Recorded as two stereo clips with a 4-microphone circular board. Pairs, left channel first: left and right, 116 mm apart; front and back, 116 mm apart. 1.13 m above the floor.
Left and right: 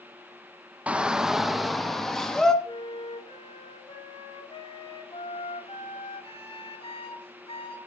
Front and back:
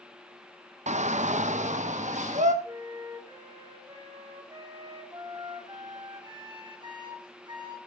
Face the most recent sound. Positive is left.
turn(degrees=130)